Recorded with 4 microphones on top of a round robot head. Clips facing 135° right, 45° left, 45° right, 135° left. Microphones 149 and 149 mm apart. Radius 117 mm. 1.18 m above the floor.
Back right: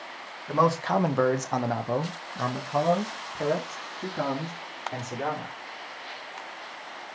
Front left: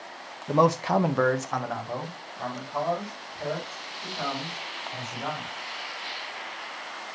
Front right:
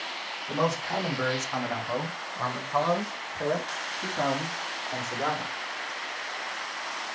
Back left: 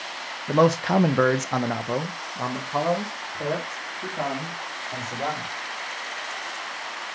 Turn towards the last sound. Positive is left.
turn(degrees=-135)